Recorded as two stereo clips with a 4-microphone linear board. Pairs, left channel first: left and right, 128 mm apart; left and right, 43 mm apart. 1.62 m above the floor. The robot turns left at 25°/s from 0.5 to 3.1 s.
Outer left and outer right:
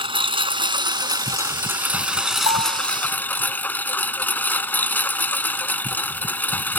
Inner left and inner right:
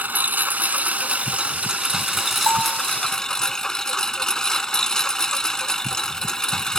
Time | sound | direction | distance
0.0 | a lawn mower | 130° right | ?
2.5 | a bell | 70° right (ahead or behind) | ?